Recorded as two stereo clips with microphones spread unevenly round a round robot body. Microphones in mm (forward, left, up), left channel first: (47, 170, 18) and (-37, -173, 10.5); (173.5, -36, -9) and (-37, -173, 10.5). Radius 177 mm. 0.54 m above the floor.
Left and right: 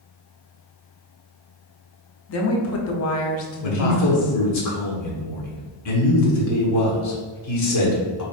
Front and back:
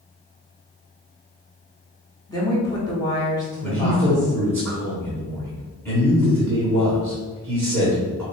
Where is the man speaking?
115° left, 1.2 m.